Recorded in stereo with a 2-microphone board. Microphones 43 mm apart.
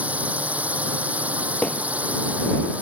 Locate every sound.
0.0 s a drone: 35° right (ahead or behind)
1.6 s hammering: 25° left (ahead or behind)